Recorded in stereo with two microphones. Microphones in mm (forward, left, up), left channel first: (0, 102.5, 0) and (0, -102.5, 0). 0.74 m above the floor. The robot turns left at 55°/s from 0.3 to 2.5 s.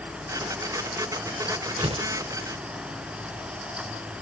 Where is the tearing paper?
35° right (ahead or behind), 0.7 m; by 2.1 s 20° right (ahead or behind), 0.7 m.